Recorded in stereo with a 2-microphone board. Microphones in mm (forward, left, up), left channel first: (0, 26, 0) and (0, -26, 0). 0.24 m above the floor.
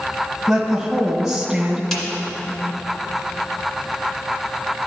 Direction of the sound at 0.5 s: 5° right (ahead or behind).